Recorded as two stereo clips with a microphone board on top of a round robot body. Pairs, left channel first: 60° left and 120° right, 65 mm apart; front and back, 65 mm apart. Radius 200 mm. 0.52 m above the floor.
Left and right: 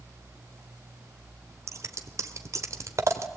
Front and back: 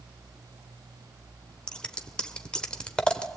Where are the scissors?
75° right, 1.4 m.